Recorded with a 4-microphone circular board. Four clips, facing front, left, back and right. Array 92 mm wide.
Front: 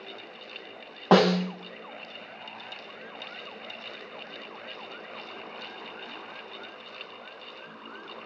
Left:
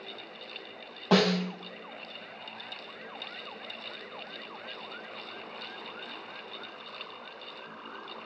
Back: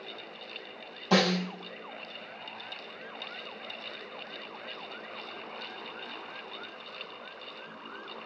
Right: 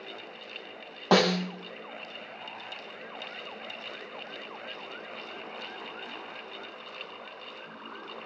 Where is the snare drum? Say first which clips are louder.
Right 1 dB, front 6 dB; 15° right, 0.7 m.